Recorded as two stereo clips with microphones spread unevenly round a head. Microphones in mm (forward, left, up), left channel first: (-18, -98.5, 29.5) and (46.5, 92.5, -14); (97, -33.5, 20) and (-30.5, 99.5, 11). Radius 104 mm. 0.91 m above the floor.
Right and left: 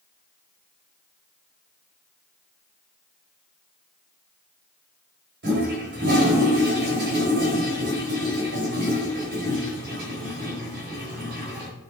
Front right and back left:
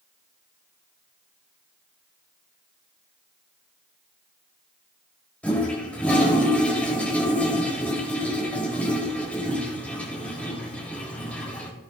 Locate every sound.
5.4 s a toilet flushing: 35° left, 5 m